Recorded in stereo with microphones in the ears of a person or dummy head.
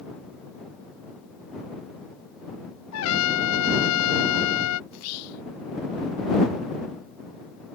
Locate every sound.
2.9 s a trumpet: 80° left
4.9 s whispering: 85° left